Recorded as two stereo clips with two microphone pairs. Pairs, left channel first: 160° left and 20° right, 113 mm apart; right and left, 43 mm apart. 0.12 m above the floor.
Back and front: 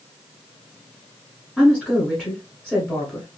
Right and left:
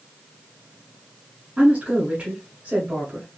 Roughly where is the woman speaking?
Left.